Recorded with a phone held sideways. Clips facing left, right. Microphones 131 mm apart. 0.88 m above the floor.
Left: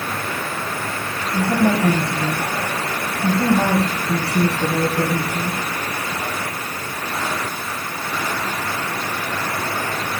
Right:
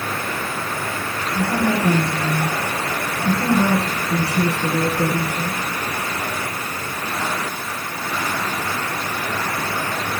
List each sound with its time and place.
1.3 s a woman speaking: 85° left, 5.5 m